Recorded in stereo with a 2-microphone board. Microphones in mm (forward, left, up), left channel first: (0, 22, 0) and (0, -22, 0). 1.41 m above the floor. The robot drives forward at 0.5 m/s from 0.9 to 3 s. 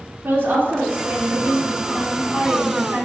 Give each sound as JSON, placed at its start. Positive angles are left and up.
{"t": 0.2, "sound": "a woman speaking", "side_deg": -50, "distance_m": 2.5}